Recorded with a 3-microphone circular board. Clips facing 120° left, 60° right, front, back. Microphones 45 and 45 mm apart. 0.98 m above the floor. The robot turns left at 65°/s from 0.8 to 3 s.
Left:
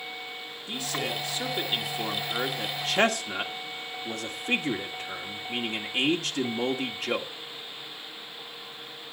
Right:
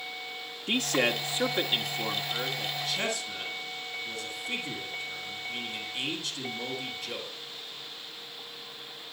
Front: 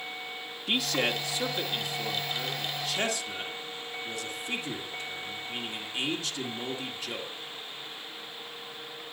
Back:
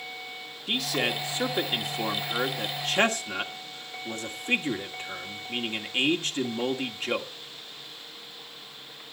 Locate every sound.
0.7 s a man speaking: 85° right, 2.0 m; by 7.3 s 130° left, 2.0 m